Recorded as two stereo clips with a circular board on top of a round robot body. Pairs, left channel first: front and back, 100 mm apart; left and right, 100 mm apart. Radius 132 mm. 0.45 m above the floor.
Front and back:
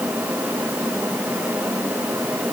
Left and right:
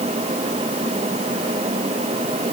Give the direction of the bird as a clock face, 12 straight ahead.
I don't hear a bird.